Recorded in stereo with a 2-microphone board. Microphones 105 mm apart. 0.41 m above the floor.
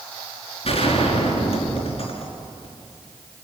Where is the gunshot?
65° left (ahead or behind), 5 m.